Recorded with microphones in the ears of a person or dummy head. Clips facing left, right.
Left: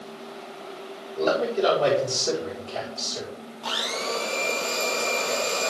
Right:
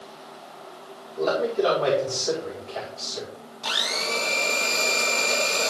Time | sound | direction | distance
1.2 | a man speaking | 40° left (ahead or behind) | 4 m
3.6 | a blender | 25° right (ahead or behind) | 1.9 m